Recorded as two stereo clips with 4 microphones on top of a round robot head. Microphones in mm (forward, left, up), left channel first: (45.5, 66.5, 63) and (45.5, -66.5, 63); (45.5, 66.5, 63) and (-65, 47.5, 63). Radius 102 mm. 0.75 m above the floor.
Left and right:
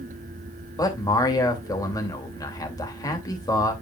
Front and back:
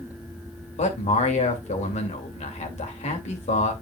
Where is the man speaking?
25° left, 2.5 m.